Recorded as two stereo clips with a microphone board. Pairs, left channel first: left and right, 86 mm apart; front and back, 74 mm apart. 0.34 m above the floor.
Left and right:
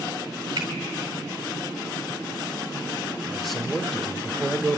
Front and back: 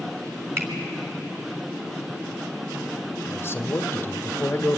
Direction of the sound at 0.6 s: 125° right.